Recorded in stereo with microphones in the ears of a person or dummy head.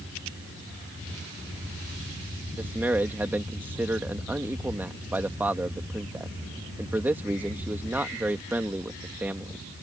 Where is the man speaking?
10° right (ahead or behind).